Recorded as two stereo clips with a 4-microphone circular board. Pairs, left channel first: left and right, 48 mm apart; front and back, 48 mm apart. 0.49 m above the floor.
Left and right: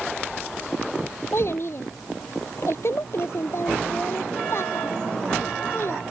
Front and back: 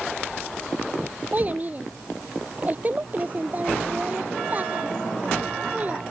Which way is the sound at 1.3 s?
125° left.